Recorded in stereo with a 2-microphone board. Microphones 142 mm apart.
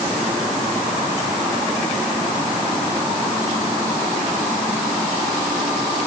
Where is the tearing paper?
I don't hear tearing paper.